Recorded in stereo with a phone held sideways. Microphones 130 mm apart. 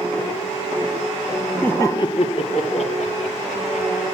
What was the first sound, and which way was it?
Laughter, 10° left (ahead or behind).